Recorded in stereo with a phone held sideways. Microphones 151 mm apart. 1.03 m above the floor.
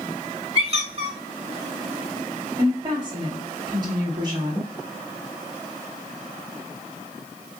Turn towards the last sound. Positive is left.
turn(degrees=-25)  # may be behind; listen again after turning